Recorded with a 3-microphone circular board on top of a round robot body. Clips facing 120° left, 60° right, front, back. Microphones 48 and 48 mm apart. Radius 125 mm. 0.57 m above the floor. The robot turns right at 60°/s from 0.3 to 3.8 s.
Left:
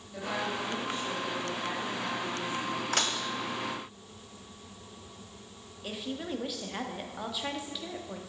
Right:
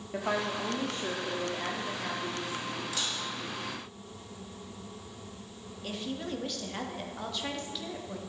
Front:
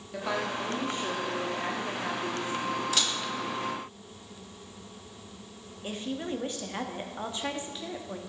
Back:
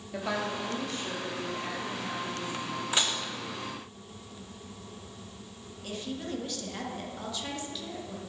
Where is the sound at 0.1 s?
95° right, 1.4 m; by 2.8 s 55° left, 1.4 m.